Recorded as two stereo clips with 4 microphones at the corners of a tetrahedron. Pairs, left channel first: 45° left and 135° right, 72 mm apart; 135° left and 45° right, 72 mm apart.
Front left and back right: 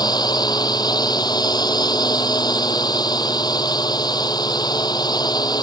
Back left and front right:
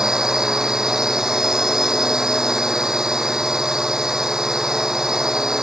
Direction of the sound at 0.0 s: 35° left.